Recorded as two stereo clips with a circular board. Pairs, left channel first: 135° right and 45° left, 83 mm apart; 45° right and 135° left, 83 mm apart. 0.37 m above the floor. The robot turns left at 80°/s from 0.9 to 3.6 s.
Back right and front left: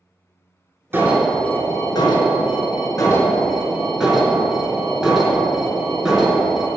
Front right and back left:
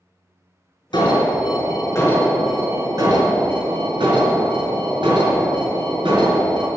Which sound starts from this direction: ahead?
An alarm, at 0.9 s.